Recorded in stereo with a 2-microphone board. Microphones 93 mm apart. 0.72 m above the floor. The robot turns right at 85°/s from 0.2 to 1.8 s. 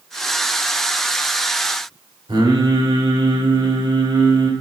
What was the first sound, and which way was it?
Singing, 65° right (ahead or behind).